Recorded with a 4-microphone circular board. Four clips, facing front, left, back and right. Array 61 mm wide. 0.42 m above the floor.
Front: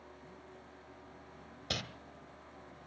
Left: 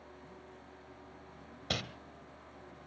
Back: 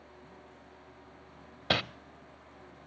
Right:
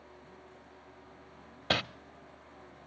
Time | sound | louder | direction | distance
1.7 | crumpling | right 7 dB, back 10 dB | 140° right | 0.5 m